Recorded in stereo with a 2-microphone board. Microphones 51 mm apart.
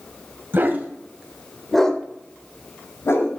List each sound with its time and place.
0.5 s a dog barking: 40° right (ahead or behind), 1.9 m; by 3.3 s 65° left (ahead or behind), 2 m